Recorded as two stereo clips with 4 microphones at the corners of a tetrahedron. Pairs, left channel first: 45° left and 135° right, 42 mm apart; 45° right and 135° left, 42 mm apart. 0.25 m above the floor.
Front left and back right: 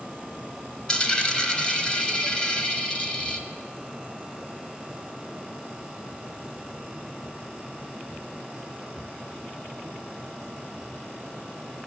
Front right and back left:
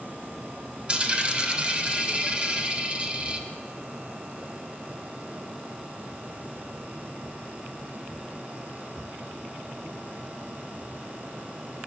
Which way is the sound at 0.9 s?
100° left.